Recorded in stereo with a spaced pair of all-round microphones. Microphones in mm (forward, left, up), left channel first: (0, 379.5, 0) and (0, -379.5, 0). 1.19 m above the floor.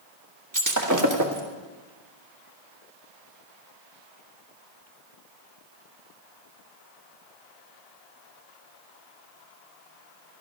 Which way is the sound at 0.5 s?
25° right (ahead or behind).